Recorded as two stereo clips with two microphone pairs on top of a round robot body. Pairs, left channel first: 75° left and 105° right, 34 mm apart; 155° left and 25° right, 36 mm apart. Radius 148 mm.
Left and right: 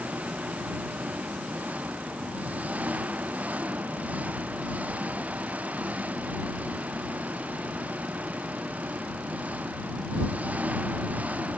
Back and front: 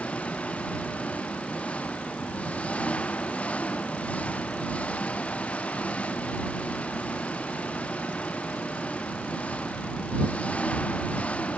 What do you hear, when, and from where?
0.0 s an engine running: 150° right